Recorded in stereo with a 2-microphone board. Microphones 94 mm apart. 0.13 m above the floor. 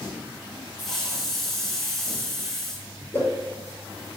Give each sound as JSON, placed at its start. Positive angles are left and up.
{"t": 0.8, "sound": "a hiss", "side_deg": 0, "distance_m": 3.0}
{"t": 3.1, "sound": "a whoosh", "side_deg": 25, "distance_m": 5.0}